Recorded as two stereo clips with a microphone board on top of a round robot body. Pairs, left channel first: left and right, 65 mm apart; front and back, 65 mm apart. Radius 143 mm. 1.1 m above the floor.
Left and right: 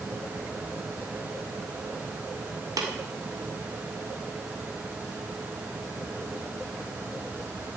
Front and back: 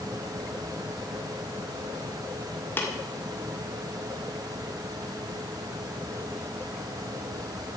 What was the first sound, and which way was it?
Tapping, 60° right.